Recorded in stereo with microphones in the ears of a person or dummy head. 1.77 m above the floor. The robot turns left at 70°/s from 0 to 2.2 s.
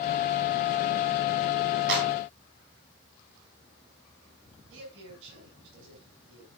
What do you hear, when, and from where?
1.9 s a clap: 65° right (ahead or behind), 6.5 m; by 2.1 s 75° right (ahead or behind), 6.5 m
4.7 s a man speaking: 75° right (ahead or behind), 7.5 m